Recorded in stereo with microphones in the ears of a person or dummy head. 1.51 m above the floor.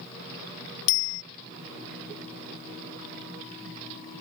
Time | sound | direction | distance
0.9 | a bicycle bell | 80° left | ?